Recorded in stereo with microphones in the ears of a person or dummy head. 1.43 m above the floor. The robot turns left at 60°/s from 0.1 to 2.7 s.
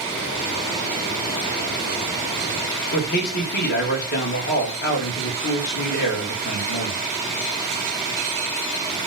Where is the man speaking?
55° left (ahead or behind), 1.2 m.